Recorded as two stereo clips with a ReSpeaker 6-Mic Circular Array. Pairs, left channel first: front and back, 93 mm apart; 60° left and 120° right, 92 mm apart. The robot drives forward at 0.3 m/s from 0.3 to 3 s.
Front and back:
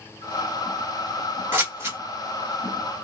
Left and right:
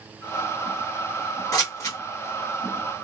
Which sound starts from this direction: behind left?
Scissors, at 1.5 s.